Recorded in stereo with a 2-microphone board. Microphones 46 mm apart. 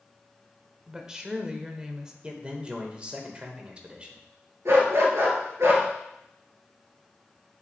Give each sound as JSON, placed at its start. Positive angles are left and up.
{"t": 0.9, "sound": "a woman speaking", "side_deg": -15, "distance_m": 0.9}
{"t": 2.2, "sound": "a man speaking", "side_deg": -25, "distance_m": 1.3}
{"t": 4.7, "sound": "a dog barking", "side_deg": -70, "distance_m": 2.5}